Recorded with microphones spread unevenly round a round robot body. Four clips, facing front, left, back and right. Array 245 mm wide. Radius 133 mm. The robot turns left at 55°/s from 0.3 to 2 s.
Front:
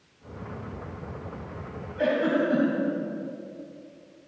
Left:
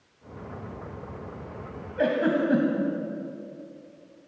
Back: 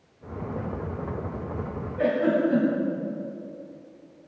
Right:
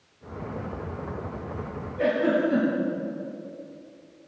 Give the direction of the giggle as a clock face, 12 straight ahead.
9 o'clock.